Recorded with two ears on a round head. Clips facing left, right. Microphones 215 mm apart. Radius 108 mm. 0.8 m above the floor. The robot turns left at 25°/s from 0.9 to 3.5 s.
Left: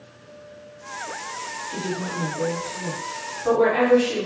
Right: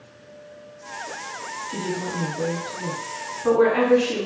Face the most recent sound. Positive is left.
turn(degrees=-65)